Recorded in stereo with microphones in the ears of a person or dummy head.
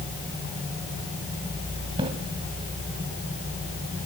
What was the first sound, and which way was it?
A splash, 30° right (ahead or behind).